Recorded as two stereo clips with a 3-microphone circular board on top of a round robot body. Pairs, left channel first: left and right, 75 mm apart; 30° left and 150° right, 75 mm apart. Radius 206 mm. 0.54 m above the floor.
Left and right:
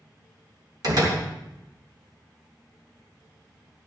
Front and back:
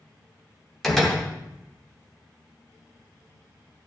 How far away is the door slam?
About 3 m.